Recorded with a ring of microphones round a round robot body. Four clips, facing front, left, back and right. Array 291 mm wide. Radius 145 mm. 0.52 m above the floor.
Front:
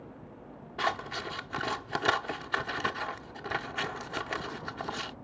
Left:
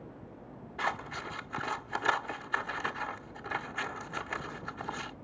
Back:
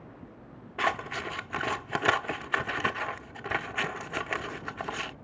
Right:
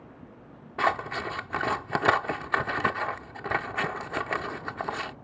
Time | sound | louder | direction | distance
0.8 | scissors | right 8 dB, back 2 dB | 100° right | ?